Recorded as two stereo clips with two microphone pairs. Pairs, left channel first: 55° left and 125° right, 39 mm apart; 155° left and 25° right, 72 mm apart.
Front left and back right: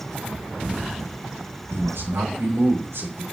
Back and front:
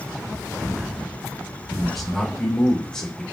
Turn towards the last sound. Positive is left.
turn(degrees=-130)